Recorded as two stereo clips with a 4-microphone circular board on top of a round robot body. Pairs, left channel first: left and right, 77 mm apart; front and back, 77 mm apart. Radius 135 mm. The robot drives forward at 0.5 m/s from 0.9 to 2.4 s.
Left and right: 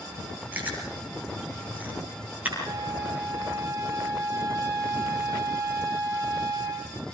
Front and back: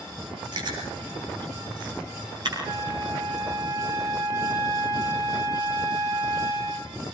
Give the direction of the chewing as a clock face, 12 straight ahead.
5 o'clock.